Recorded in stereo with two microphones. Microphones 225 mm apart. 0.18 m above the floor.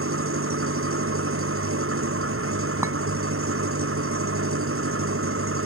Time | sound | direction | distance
0.0 | an engine running | 75° right (ahead or behind) | ?
2.8 | a clink | 15° right (ahead or behind) | ?